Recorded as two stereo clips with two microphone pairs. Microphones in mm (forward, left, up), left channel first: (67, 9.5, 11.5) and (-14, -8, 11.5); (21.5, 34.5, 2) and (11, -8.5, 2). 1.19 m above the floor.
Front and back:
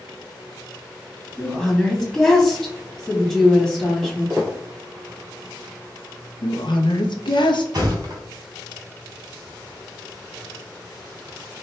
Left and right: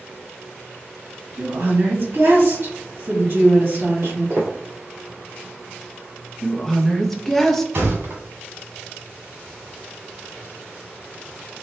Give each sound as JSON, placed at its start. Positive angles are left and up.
{"t": 1.4, "sound": "a woman speaking", "azimuth_deg": -75, "distance_m": 2.5}
{"t": 4.0, "sound": "footsteps", "azimuth_deg": -110, "distance_m": 2.0}
{"t": 6.4, "sound": "a woman speaking", "azimuth_deg": -10, "distance_m": 1.0}
{"t": 7.7, "sound": "a thud", "azimuth_deg": -125, "distance_m": 2.5}